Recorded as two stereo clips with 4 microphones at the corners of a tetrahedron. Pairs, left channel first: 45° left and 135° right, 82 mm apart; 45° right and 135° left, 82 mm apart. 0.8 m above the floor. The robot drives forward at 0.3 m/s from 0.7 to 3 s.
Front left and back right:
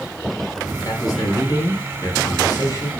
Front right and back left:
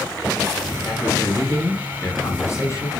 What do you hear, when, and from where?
0.8 s a man speaking: 5° left, 4.5 m; by 2.9 s 10° left, 4 m